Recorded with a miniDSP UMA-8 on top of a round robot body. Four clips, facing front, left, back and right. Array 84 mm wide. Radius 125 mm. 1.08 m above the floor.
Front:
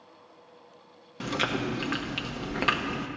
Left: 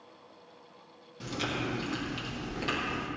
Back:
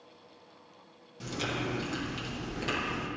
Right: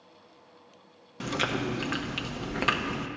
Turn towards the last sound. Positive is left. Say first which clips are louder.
# right 4 dB, front 5 dB
turn(degrees=-40)